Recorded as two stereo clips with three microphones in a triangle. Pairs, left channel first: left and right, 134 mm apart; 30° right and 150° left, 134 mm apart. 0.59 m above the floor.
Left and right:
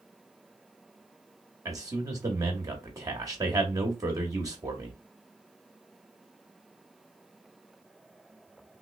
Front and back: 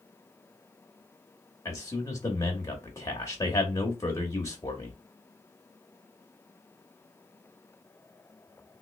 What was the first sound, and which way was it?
A man speaking, 60° right.